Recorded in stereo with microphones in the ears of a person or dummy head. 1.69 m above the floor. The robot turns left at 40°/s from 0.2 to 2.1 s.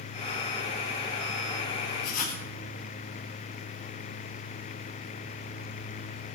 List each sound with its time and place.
2.0 s writing: 50° left (ahead or behind), 2 m; by 2.4 s 45° left (ahead or behind), 2 m